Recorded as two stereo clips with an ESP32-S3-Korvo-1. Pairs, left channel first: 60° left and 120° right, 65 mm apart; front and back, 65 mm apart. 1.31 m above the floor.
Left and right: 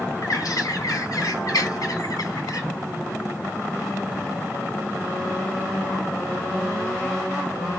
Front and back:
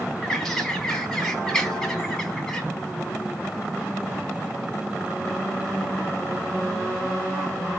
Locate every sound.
0.2 s a bird: 80° left, 3 m